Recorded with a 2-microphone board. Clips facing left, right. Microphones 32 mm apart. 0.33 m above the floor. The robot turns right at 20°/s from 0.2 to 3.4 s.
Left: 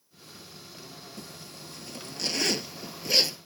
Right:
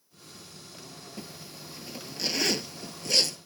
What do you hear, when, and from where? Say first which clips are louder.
1.2 s a zipper: right 3 dB; 25° right (ahead or behind); by 3.4 s 20° left (ahead or behind)